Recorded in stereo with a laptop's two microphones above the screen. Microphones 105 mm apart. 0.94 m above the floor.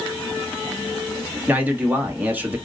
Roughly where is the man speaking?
Centre.